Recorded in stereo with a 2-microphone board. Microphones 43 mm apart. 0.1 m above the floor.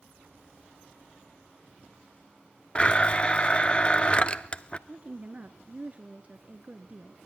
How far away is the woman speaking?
About 1.3 m.